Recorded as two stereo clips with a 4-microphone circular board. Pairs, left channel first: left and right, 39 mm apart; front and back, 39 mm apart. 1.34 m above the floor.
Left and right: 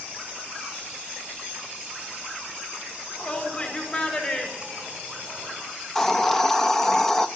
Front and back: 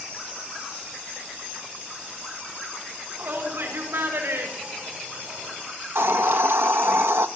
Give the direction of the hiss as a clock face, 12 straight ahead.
6 o'clock.